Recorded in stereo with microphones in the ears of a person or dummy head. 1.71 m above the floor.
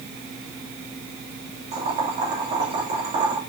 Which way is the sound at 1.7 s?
30° right (ahead or behind).